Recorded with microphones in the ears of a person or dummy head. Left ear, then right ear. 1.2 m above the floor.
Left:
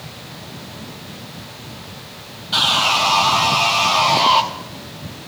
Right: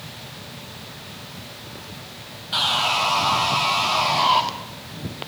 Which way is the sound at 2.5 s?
15° left (ahead or behind).